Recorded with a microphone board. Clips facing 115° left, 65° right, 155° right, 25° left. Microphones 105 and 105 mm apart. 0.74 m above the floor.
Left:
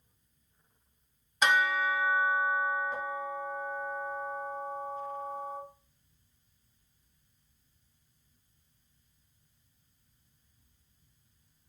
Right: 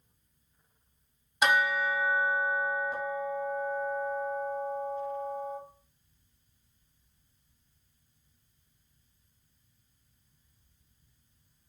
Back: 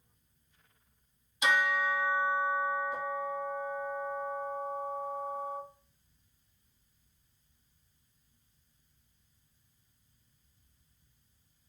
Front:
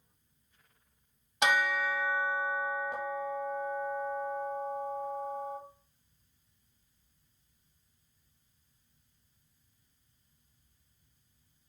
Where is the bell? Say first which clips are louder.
Right 1 dB, even; 20° left, 1.0 m.